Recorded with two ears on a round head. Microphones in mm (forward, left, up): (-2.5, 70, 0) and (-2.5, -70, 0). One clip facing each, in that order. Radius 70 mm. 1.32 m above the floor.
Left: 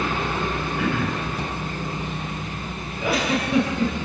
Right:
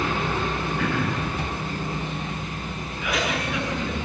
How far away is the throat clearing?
About 6 m.